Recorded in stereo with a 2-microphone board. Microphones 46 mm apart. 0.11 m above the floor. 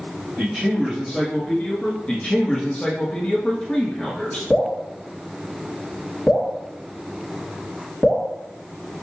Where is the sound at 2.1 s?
25° left (ahead or behind), 1.4 m.